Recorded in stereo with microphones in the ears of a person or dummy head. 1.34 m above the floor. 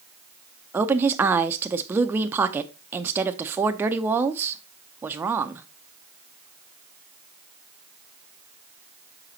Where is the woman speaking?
15° right (ahead or behind), 0.5 m.